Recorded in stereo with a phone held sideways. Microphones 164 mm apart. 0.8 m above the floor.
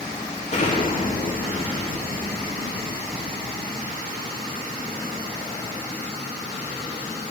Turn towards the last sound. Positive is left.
turn(degrees=45)  # may be behind; listen again after turning